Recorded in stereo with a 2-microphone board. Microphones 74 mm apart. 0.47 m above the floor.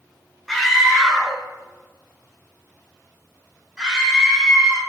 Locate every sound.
0.5 s a scream: centre (ahead or behind), 1.6 m; by 4.8 s 15° right (ahead or behind), 4 m